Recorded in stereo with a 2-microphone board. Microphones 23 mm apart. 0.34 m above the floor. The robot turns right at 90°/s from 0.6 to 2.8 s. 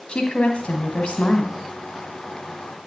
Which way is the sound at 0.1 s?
60° left.